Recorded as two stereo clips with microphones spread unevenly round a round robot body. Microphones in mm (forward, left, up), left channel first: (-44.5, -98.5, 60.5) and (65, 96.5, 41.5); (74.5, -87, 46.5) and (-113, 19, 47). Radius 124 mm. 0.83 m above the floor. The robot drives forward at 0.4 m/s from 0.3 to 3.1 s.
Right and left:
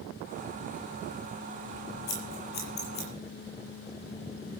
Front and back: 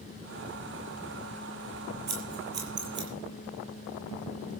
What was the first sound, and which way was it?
Scissors, 170° right.